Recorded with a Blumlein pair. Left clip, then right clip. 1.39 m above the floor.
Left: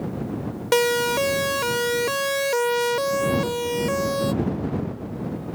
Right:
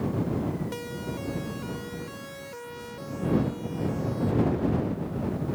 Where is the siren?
50° left.